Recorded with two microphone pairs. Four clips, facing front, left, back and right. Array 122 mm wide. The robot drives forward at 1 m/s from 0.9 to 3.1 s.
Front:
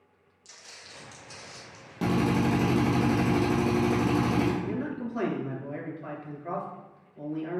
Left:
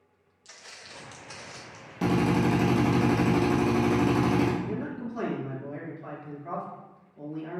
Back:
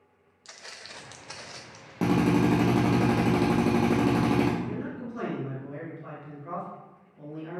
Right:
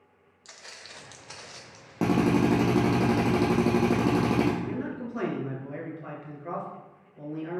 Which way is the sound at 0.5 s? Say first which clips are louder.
Right 1 dB, back 5 dB; 155° right.